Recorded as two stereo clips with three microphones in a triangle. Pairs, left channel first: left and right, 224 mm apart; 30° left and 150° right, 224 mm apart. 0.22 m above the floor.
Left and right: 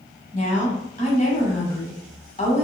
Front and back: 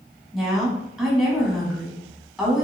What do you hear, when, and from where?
0.3 s a woman speaking: 120° left, 1.2 m